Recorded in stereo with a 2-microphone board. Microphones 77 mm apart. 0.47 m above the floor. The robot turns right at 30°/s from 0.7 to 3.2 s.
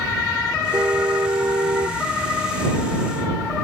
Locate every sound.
0.7 s a car horn: 150° right; by 2.0 s 110° right